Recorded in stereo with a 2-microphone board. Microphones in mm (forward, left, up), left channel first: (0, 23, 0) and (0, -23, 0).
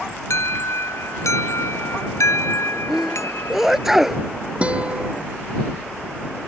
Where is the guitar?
25° right (ahead or behind).